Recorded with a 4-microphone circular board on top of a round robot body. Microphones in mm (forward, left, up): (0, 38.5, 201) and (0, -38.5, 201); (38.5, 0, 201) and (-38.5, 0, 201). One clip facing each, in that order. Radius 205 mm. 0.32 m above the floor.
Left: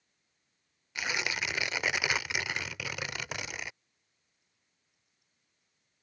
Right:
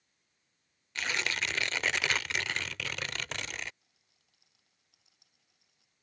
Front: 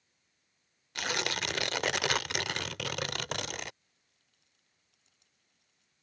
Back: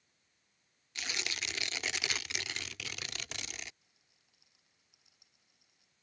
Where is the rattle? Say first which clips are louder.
Right 2 dB, even; 100° right.